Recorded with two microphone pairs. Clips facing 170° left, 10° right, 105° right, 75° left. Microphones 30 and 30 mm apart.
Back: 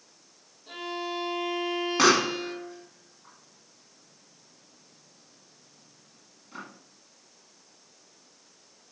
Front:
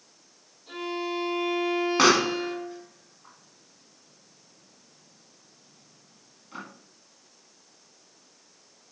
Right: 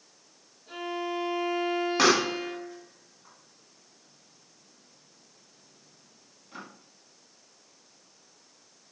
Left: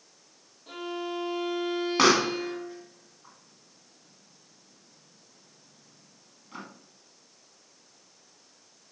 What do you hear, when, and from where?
0.7 s a violin: 85° left, 2.5 m
2.0 s a pop: 35° left, 1.5 m